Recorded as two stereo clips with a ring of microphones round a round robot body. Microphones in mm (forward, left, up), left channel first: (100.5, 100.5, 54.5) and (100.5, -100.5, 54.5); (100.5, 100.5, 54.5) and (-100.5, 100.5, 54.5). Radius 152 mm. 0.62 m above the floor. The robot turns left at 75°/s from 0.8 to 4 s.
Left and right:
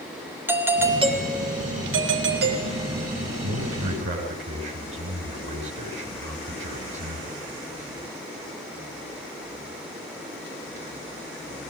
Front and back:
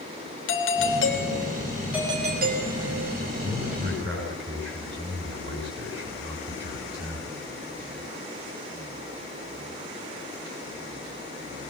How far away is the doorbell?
About 3 m.